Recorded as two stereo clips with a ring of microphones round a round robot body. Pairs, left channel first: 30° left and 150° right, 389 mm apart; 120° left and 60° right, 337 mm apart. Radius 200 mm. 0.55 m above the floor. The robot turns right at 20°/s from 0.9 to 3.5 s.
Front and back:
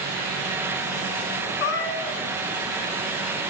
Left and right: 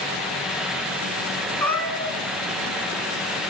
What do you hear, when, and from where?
1.6 s a cat meowing: 30° left, 1.4 m; by 2.2 s 45° left, 1.4 m